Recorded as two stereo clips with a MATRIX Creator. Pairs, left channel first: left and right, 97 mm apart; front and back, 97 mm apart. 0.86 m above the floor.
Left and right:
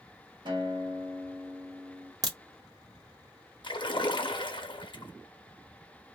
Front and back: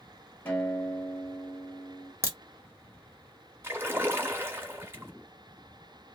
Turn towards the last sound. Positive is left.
turn(degrees=115)